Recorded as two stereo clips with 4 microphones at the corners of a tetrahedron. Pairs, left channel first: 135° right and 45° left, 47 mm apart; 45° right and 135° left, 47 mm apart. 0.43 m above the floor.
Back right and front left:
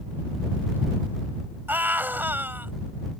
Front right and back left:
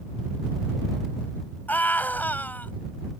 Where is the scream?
5° left.